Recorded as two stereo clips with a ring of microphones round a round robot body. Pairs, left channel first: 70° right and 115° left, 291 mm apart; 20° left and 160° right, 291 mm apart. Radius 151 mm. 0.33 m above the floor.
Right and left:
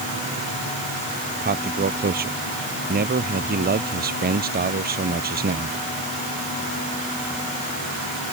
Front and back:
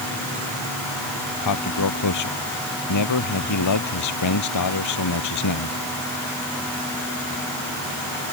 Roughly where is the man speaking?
Ahead left.